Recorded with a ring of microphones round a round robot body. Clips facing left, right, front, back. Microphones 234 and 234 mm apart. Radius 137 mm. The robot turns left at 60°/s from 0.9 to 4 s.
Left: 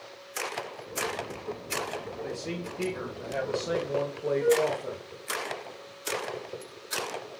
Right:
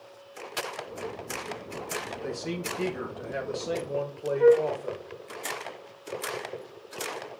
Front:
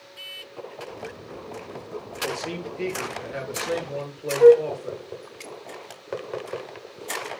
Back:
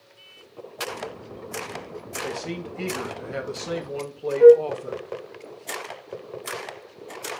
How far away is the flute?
About 0.7 m.